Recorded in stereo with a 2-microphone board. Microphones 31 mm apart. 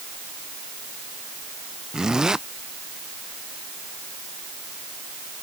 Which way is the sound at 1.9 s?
25° right (ahead or behind).